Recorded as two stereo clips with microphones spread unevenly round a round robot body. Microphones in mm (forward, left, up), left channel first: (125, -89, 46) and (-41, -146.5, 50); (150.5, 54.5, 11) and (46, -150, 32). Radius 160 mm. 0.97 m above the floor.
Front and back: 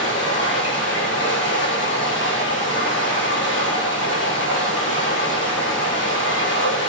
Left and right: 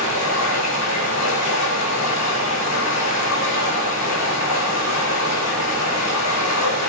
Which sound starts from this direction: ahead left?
Running water, at 0.0 s.